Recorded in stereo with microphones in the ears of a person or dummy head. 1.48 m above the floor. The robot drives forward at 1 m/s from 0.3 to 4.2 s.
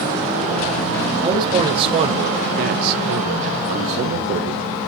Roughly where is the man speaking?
Right.